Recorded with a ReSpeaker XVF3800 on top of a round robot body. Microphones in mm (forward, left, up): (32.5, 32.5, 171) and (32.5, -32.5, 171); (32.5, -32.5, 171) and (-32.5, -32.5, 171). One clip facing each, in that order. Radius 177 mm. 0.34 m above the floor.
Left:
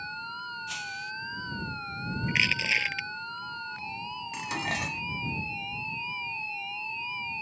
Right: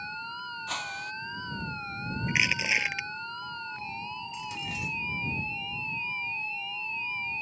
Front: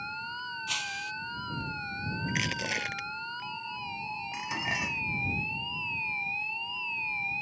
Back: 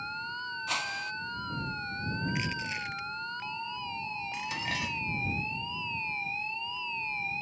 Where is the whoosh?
125° right.